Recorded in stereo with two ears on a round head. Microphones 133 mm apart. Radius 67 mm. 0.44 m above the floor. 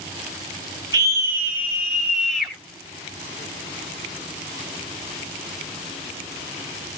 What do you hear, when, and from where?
0.9 s a scream: 25° right (ahead or behind), 1.7 m; by 2.5 s centre (ahead or behind), 2 m